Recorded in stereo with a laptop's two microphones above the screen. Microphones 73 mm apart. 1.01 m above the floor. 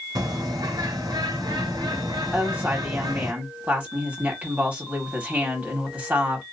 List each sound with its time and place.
0.1 s a bird: 70° right (ahead or behind), 1.8 m
2.3 s a woman speaking: 20° right (ahead or behind), 2.0 m